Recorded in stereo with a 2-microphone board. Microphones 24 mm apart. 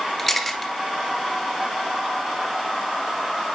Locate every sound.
0.2 s a camera shutter: centre (ahead or behind), 2.0 m